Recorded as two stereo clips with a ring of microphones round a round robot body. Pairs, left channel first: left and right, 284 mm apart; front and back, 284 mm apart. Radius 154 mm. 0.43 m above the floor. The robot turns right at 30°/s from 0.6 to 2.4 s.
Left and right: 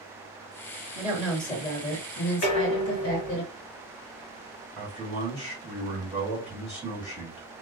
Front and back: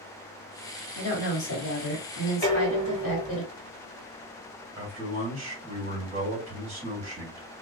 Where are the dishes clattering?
80° left, 1.6 m.